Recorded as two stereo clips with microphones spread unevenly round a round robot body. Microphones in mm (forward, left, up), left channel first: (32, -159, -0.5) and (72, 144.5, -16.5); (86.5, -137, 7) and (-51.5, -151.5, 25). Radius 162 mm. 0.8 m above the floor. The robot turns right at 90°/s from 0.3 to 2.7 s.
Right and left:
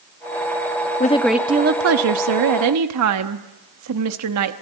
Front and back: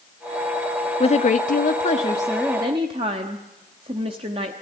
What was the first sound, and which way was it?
A woman speaking, 35° right.